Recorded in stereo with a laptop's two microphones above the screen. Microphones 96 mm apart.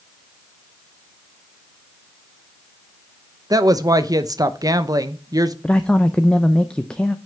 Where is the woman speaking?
40° right (ahead or behind), 0.7 m.